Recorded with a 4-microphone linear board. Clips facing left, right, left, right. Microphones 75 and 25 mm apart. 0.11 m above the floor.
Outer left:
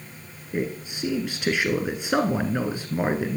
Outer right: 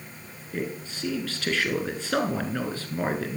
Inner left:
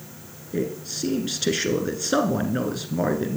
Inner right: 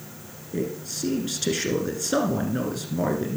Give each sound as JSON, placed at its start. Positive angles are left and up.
{"t": 0.5, "sound": "a man speaking", "side_deg": 15, "distance_m": 1.1}